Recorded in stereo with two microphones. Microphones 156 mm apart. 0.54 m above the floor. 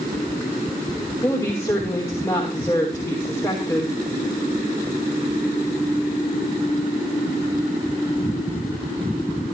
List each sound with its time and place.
1.2 s a woman speaking: 15° left (ahead or behind), 3 m